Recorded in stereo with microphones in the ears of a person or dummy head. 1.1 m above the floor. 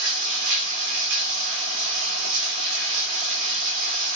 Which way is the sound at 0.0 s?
70° right (ahead or behind).